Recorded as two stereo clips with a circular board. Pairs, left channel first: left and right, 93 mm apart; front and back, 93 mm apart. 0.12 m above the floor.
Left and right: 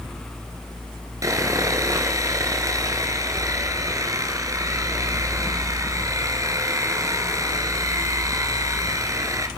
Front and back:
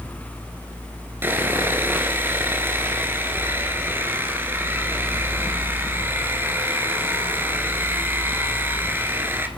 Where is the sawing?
125° right, 2.0 m.